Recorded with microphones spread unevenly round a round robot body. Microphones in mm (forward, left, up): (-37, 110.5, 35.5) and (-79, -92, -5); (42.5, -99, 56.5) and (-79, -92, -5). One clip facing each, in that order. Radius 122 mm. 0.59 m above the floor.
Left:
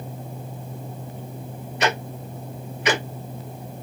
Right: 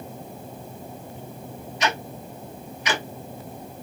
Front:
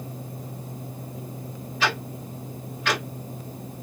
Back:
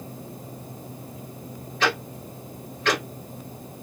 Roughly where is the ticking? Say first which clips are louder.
Left 3 dB, back 2 dB; left.